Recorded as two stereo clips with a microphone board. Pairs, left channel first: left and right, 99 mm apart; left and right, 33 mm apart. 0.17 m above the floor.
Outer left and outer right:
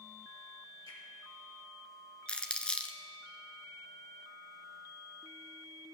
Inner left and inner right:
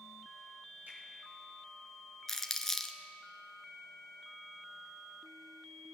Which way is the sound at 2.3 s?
10° left (ahead or behind).